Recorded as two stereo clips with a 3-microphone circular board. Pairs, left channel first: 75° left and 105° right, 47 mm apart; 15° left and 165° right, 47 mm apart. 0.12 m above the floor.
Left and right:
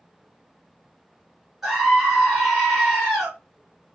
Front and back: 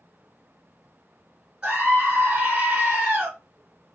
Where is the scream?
Straight behind, 1.1 m.